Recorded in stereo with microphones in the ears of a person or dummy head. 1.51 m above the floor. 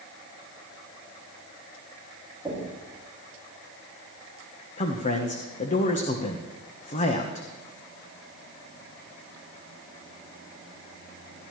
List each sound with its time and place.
2.5 s knocking: 10° right (ahead or behind), 7 m
4.8 s a man speaking: 40° left (ahead or behind), 1.3 m